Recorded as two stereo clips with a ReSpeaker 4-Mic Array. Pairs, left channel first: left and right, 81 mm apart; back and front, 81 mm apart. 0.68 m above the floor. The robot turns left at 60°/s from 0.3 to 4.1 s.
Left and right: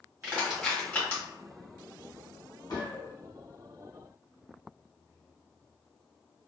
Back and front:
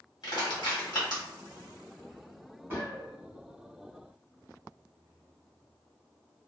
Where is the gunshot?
65° left, 1.1 m; by 3.1 s 35° left, 1.1 m.